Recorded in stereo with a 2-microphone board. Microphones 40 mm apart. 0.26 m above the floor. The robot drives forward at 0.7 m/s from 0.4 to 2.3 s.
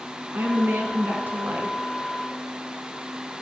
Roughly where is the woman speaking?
Right.